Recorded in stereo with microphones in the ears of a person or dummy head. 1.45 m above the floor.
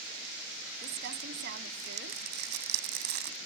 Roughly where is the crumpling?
Right.